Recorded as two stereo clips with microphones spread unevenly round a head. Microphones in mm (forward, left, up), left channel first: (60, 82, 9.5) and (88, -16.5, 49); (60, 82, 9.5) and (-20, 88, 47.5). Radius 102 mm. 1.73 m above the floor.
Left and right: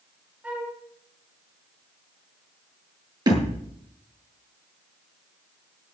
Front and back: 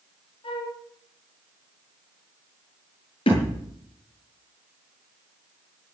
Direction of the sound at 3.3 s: 30° right.